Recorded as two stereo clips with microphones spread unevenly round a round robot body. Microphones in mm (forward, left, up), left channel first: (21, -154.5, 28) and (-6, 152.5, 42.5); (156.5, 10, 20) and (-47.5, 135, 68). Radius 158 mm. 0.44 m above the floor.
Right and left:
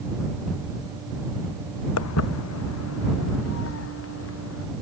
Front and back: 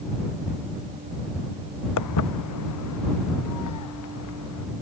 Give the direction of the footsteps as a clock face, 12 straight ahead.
1 o'clock.